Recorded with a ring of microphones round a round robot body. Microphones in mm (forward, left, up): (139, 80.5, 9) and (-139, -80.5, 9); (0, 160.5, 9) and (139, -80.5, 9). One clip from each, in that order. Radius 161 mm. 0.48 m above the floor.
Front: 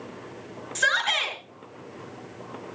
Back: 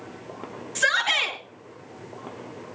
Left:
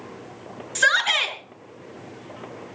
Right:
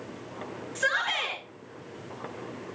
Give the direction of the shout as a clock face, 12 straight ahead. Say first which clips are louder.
Back 1 dB, left 8 dB; 8 o'clock.